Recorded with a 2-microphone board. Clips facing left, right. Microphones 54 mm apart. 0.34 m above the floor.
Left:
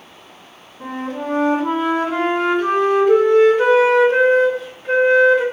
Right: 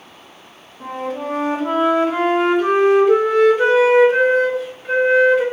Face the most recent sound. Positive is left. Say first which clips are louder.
# right 1 dB
turn(degrees=-5)  # may be behind; listen again after turning